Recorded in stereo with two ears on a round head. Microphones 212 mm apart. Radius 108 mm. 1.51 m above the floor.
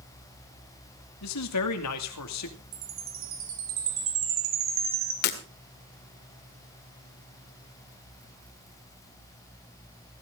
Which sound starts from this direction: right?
A chime, at 2.7 s.